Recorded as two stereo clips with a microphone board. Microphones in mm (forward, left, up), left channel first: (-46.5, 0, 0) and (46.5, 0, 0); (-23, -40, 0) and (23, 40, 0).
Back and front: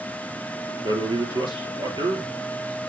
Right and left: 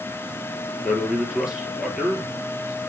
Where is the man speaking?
25° right, 3 m.